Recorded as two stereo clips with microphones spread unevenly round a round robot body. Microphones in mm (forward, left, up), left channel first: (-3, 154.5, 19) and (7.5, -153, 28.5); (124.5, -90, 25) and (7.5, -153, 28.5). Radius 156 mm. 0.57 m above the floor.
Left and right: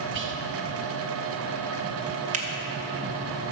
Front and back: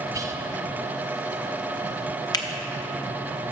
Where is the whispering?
100° right, 0.8 m.